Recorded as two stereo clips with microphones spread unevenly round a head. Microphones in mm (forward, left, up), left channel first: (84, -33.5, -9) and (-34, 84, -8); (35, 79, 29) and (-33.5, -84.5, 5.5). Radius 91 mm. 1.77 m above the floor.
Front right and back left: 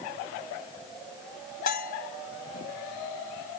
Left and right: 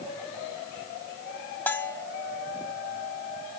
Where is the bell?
10° right.